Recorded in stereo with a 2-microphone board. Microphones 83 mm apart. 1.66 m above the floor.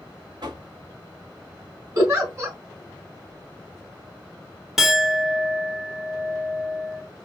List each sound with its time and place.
0.4 s knocking: 60° right (ahead or behind), 1.4 m
1.9 s a giggle: 35° right (ahead or behind), 3.5 m
4.8 s a clink: centre (ahead or behind), 0.8 m